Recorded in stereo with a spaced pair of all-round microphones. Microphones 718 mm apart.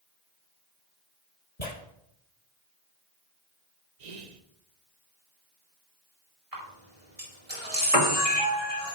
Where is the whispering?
65° right (ahead or behind), 1.0 m.